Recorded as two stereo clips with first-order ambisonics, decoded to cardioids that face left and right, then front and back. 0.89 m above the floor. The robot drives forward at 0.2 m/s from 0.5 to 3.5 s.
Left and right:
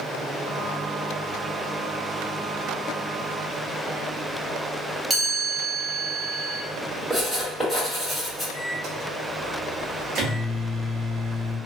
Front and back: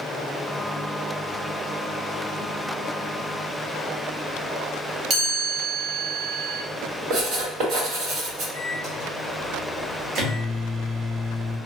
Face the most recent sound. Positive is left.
turn(degrees=-135)